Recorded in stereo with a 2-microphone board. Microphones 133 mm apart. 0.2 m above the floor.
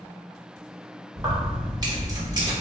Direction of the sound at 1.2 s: 30° right (ahead or behind).